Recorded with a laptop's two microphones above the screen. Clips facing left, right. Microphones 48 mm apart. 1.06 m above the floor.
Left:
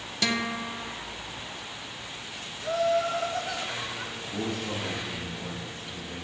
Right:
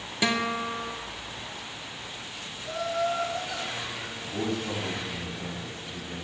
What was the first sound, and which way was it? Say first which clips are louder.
A guitar: right 2 dB; 15° right (ahead or behind).